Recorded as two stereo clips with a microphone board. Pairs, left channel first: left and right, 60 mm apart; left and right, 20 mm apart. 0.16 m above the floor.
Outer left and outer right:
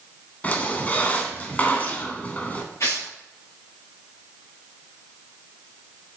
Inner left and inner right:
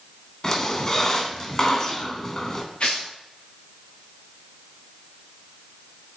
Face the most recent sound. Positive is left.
turn(degrees=60)  # may be behind; listen again after turning